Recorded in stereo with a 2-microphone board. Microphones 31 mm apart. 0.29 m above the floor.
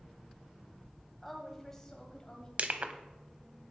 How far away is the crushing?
About 0.5 m.